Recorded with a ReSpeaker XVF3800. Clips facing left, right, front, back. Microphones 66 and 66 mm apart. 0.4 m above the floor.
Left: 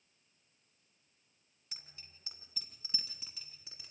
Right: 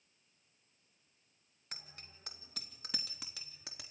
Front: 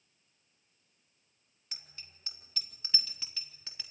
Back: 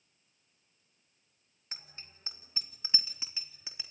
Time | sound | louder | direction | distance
1.7 | a bicycle bell | right 5 dB, back 3 dB | 125° right | 2.5 m